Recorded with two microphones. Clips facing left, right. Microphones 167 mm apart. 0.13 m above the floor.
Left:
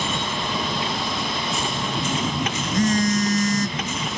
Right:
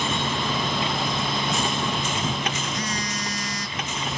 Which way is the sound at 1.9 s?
45° left (ahead or behind).